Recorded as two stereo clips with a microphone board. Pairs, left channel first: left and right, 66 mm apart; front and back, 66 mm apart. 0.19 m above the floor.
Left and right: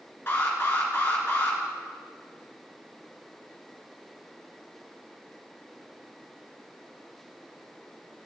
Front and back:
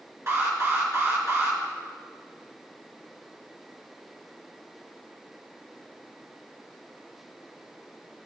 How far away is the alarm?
About 1.8 m.